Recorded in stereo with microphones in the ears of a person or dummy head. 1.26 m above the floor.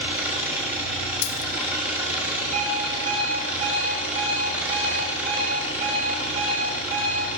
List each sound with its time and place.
0.0 s an engine running: 10° right (ahead or behind), 3.5 m
1.2 s a dropped coin: 65° left (ahead or behind), 1.3 m
2.5 s an alarm clock: 40° right (ahead or behind), 2.5 m